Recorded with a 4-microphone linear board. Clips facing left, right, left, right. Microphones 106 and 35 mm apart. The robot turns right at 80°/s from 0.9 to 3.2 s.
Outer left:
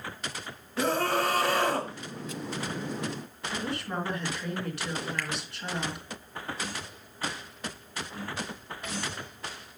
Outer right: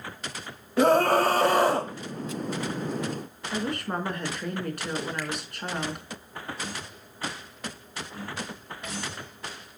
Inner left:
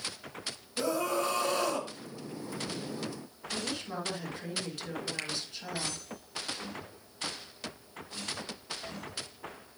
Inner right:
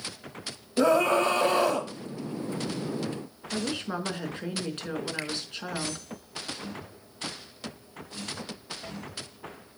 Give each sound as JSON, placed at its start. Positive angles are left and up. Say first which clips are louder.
{"t": 0.8, "sound": "a scream", "louder": "outer right 7 dB, inner right 9 dB", "azimuth_deg": -110, "distance_m": 1.5}
{"t": 3.5, "sound": "a woman speaking", "louder": "outer right 3 dB, inner right 5 dB", "side_deg": -50, "distance_m": 4.0}
{"t": 5.2, "sound": "a finger snap", "louder": "outer right 2 dB, inner right 4 dB", "side_deg": -15, "distance_m": 4.5}